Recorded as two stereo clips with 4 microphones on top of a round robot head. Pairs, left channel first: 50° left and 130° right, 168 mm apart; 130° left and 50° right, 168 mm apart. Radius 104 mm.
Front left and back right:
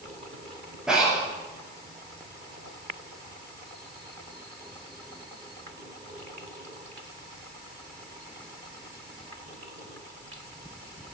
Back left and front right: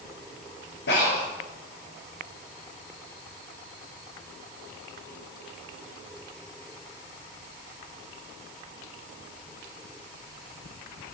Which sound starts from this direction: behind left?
Breathing, at 0.9 s.